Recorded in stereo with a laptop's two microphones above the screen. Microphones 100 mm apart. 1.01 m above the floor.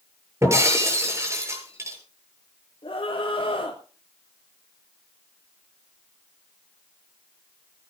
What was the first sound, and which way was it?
Breaking glass, 25° right (ahead or behind).